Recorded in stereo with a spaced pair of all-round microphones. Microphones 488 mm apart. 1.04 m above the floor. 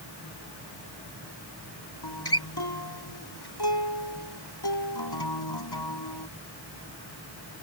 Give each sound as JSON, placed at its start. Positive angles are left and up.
{"t": 2.0, "sound": "a guitar", "side_deg": 50}